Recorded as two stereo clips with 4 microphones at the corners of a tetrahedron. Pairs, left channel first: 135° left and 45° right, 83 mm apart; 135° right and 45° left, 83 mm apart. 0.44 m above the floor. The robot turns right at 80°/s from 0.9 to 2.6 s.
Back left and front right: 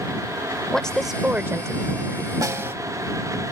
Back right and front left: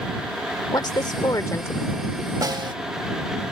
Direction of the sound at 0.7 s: 145° right.